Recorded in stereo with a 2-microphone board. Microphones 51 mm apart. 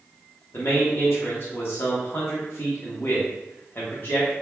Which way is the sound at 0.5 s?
45° left (ahead or behind).